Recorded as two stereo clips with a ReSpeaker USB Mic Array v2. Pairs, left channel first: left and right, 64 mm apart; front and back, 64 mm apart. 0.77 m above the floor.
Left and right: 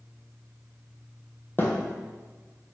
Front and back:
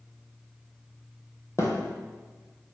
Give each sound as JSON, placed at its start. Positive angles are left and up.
{"t": 1.6, "sound": "a thud", "azimuth_deg": 40, "distance_m": 1.5}